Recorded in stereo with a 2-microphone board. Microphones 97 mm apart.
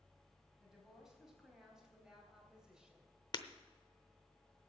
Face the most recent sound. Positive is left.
turn(degrees=45)  # may be behind; listen again after turning